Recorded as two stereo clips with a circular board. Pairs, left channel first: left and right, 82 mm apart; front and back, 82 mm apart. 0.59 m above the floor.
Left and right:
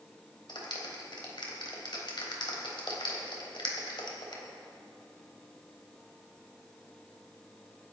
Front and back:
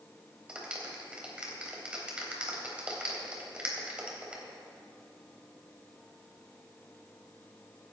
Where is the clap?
105° left, 3 m.